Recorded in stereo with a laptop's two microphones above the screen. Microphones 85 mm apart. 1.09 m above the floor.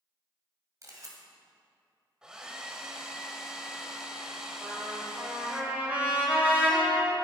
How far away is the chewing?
I don't hear chewing.